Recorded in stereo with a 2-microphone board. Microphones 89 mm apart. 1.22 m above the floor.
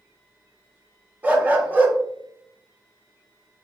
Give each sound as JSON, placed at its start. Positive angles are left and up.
{"t": 1.2, "sound": "a dog barking", "side_deg": -20, "distance_m": 0.6}